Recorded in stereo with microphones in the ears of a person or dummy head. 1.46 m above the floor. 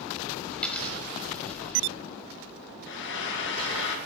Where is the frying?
65° left (ahead or behind), 1.0 m.